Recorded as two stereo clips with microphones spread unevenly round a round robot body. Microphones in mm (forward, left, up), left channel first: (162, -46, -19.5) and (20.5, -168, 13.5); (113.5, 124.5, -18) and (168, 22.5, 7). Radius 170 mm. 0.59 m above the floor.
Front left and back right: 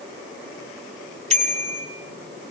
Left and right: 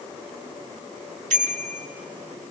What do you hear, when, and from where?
1.3 s a bicycle bell: 85° right, 4.5 m